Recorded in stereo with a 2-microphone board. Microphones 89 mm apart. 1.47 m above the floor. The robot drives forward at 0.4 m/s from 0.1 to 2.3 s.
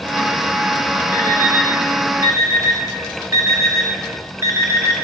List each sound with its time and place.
1.1 s an alarm clock: 25° right (ahead or behind), 1.8 m; by 5.0 s 35° right (ahead or behind), 1.5 m